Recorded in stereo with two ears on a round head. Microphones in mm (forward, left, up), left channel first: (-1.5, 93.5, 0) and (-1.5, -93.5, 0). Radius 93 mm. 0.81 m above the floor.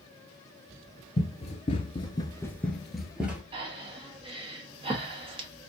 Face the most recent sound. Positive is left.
turn(degrees=-25)  # may be behind; listen again after turning